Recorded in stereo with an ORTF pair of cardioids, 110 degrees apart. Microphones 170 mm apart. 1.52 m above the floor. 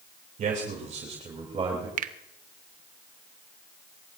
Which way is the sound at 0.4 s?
50° right.